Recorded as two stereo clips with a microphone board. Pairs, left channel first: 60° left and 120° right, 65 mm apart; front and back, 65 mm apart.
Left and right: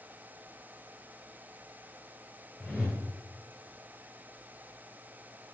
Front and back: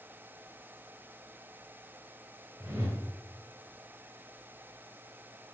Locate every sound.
2.6 s a whoosh: 160° left, 1.1 m